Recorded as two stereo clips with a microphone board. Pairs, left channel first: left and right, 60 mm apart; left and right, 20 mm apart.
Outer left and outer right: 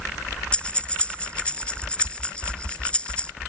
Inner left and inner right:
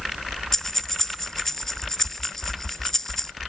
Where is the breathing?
15° left (ahead or behind).